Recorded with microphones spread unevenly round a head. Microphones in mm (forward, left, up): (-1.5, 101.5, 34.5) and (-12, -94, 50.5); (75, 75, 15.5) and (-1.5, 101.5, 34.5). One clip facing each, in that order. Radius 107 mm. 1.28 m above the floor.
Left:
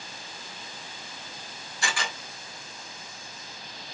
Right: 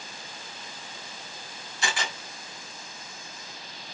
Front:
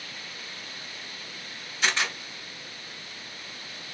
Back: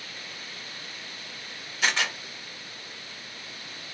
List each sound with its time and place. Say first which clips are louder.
1.8 s a camera shutter: right 1 dB, back 1 dB; 160° right, 1.6 m